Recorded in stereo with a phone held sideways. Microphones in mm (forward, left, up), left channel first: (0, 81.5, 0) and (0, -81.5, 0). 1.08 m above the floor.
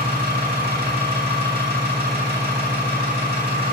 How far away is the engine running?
About 1.7 m.